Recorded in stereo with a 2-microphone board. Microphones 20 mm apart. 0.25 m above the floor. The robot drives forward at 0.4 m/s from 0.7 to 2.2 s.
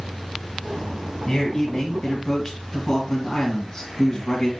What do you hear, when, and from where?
1.3 s a man speaking: 15° left (ahead or behind), 2 m